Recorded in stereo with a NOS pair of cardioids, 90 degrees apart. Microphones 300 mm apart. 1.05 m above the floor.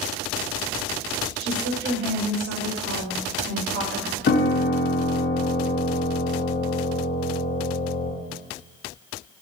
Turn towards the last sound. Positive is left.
turn(degrees=40)